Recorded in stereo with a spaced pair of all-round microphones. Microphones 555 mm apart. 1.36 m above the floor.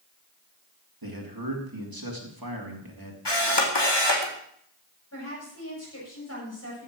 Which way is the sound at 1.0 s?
40° right (ahead or behind).